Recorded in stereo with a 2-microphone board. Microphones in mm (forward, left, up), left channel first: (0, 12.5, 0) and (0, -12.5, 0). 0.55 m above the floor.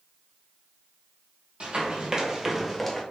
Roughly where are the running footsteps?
Right.